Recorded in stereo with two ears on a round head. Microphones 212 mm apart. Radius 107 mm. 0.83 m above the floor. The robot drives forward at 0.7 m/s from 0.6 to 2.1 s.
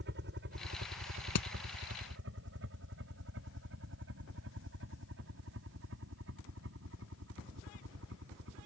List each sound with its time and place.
0.0 s a helicopter: 45° right (ahead or behind); by 8.7 s 55° right (ahead or behind)
1.4 s hammering: 90° left